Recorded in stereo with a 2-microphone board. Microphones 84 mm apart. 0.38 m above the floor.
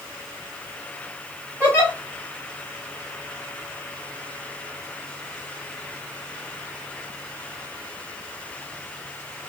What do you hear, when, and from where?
1.6 s a giggle: 20° left (ahead or behind), 2.5 m